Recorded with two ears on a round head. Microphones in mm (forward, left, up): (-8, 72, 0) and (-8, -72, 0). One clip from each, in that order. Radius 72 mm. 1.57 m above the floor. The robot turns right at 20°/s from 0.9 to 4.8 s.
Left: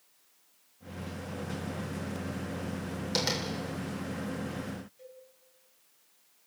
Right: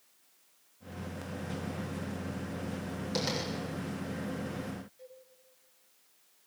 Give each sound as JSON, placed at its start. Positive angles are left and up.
{"t": 3.1, "sound": "tapping", "side_deg": 35, "distance_m": 7.5}
{"t": 5.0, "sound": "a cowbell", "side_deg": 5, "distance_m": 5.0}